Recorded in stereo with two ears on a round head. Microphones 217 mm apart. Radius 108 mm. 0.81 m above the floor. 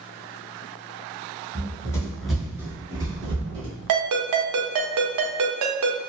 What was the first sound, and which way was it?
Running footsteps, 20° left (ahead or behind).